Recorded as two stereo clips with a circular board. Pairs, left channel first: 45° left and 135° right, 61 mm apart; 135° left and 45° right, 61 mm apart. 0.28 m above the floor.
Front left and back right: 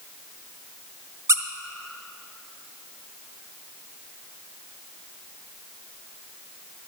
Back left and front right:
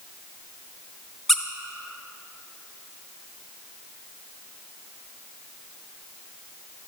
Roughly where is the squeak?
Behind right.